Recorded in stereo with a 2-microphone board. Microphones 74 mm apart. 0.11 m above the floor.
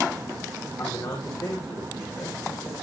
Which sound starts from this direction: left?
A man speaking, at 0.8 s.